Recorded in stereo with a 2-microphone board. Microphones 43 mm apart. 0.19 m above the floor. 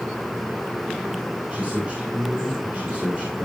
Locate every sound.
1.5 s a man speaking: 30° right (ahead or behind), 6 m